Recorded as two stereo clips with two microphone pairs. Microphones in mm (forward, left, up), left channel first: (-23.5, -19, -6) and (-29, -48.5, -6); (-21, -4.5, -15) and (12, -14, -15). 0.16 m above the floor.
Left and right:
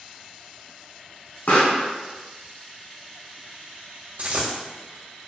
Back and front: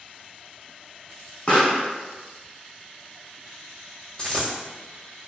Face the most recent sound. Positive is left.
turn(degrees=-130)